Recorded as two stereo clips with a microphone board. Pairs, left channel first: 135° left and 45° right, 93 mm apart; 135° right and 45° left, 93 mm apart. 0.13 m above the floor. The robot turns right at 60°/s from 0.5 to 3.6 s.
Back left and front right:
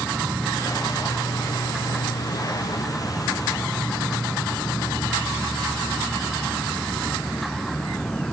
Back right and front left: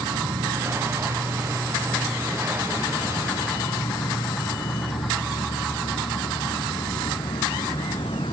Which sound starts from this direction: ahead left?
An insect, at 0.0 s.